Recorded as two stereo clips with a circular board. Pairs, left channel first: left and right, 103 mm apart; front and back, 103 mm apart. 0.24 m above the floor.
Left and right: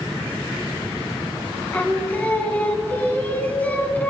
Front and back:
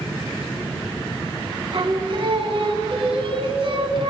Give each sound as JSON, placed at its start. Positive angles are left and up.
{"t": 1.7, "sound": "singing", "azimuth_deg": 160, "distance_m": 1.3}